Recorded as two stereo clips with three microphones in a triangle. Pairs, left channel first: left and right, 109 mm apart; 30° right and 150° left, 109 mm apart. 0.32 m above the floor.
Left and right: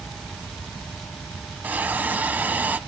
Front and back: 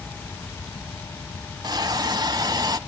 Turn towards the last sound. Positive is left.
turn(degrees=-160)